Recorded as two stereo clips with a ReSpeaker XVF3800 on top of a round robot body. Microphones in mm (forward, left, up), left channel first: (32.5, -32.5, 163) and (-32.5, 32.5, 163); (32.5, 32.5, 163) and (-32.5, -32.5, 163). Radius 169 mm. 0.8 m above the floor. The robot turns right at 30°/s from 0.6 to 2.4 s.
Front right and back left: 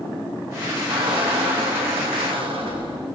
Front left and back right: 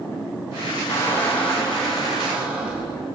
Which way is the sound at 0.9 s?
105° left.